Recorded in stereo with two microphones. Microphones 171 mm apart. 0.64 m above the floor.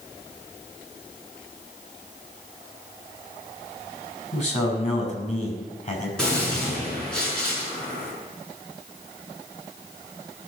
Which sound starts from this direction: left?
A man speaking, at 4.3 s.